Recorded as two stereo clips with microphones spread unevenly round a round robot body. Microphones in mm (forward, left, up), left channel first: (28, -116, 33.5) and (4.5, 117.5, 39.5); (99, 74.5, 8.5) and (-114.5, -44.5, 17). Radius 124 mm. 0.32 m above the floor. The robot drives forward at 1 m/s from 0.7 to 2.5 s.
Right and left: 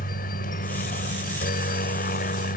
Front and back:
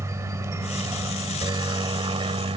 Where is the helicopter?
80° right; by 2.6 s 95° right.